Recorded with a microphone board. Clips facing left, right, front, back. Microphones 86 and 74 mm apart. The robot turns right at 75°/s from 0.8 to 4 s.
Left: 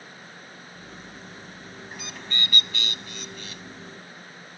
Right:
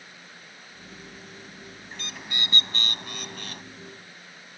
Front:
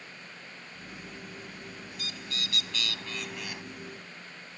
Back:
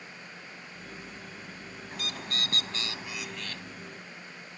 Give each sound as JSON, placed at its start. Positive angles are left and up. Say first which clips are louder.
{"t": 1.9, "sound": "a bird", "louder": "left 1 dB, back 6 dB", "azimuth_deg": 165}